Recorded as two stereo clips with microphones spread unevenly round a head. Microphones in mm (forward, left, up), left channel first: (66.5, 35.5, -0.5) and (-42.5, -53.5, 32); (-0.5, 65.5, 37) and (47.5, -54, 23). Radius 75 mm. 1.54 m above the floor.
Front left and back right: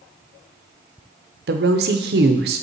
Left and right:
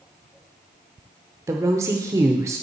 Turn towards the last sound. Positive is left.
turn(degrees=-140)